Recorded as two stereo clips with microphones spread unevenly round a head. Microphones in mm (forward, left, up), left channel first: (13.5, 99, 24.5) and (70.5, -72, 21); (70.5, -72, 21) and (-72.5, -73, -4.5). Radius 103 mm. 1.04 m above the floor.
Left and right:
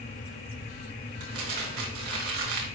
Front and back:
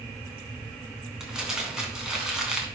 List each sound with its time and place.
1.2 s crumpling: 90° right, 2.5 m